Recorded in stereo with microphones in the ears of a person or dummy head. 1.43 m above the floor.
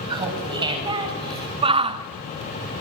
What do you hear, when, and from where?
0.1 s laughter: 25° right (ahead or behind), 7.5 m
1.6 s a shout: 30° right (ahead or behind), 1.5 m